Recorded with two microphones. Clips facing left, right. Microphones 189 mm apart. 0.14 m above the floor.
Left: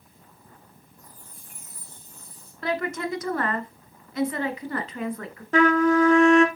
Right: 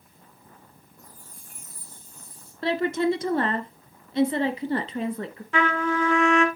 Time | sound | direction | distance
1.0 | a chime | 45° right (ahead or behind) | 5.5 m
2.6 | a woman speaking | 30° right (ahead or behind) | 1.4 m
5.5 | a trumpet | 40° left (ahead or behind) | 1.6 m